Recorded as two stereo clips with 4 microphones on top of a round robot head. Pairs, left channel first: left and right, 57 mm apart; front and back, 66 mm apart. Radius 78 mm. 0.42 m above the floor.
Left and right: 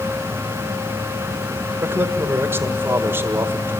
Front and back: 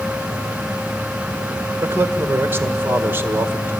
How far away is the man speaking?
About 1.7 m.